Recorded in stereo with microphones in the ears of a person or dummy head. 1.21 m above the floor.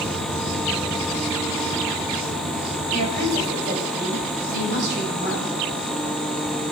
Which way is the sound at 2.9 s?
55° right (ahead or behind).